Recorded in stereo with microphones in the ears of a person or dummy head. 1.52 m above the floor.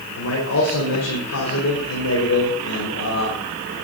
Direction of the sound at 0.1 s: 85° left.